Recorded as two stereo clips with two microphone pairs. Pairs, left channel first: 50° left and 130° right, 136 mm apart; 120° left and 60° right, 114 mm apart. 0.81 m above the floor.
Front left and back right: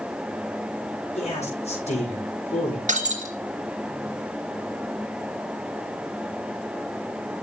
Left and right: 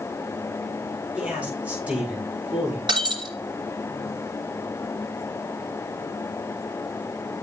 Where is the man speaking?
15° left, 7 m.